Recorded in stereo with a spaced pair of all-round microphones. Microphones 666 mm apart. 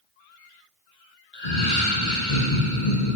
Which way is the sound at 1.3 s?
80° left.